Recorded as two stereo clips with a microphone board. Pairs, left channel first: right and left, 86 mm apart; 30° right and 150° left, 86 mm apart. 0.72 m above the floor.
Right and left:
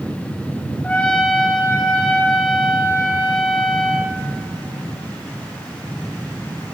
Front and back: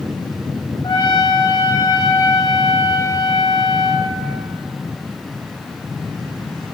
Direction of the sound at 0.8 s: 15° right.